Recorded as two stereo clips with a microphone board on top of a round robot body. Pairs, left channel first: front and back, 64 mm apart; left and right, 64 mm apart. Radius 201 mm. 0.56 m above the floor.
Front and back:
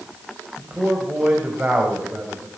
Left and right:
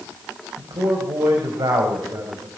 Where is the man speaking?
110° right, 5 m.